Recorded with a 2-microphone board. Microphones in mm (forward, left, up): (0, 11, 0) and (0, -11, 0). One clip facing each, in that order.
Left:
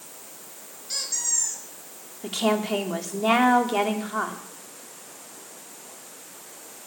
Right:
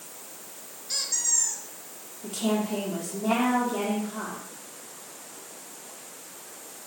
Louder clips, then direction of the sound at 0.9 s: Even; 10° right (ahead or behind).